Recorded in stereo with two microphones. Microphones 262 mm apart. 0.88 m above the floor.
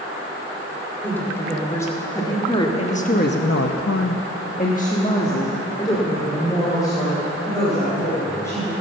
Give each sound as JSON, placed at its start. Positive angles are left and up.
{"t": 1.0, "sound": "a woman speaking", "side_deg": 5, "distance_m": 3.0}